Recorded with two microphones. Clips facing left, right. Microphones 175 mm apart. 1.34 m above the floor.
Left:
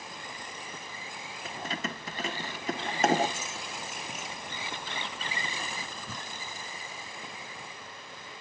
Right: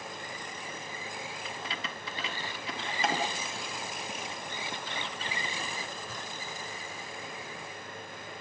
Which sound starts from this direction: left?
Keys jangling, at 1.4 s.